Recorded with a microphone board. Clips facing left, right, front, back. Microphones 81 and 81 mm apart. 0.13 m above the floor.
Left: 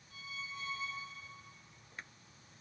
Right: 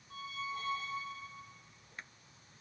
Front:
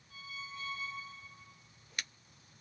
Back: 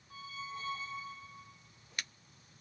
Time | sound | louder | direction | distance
0.1 | a squeak | right 6 dB, back 3 dB | 130° right | 3 m